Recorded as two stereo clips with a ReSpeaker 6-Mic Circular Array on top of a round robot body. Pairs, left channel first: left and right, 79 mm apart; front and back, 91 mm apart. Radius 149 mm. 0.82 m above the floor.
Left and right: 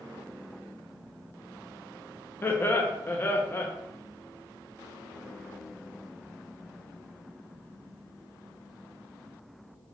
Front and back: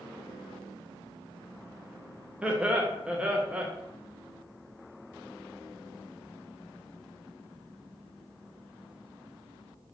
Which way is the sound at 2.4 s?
115° left.